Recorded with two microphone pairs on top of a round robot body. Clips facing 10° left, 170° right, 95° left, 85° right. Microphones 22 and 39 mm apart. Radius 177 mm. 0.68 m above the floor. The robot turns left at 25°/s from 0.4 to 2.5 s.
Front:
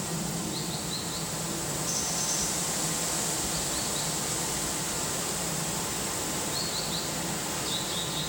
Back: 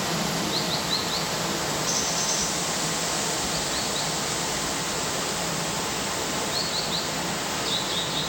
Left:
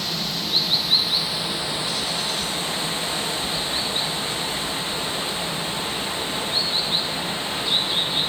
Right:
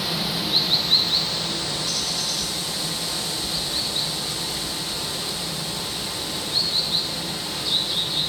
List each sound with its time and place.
0.0 s running water: 170° right, 0.7 m; by 8.3 s 135° left, 0.7 m